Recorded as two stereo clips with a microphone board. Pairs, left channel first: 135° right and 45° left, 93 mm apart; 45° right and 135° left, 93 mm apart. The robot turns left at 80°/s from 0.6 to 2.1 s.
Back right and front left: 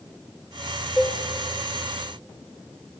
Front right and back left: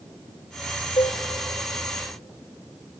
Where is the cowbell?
40° right, 1.7 m; by 1.2 s 60° right, 1.7 m.